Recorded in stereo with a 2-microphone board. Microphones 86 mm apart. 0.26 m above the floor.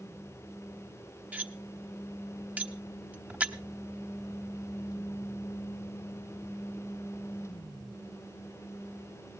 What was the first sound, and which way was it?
Cutlery clinking, 20° right (ahead or behind).